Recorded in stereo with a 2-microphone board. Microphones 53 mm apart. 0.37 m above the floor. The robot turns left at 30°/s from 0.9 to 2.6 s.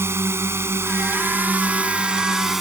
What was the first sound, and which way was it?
A drone, 125° right.